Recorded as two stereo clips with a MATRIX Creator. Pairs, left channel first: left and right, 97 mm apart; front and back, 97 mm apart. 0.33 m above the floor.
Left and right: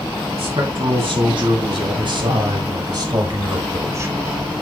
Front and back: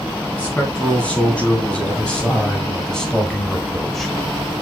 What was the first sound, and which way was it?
A man speaking, 75° right.